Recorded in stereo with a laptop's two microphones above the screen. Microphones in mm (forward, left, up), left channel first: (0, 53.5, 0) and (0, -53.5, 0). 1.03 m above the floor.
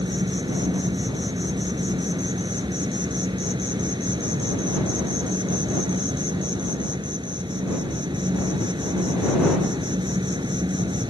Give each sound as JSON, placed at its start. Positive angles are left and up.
{"t": 0.0, "sound": "an insect", "side_deg": -45}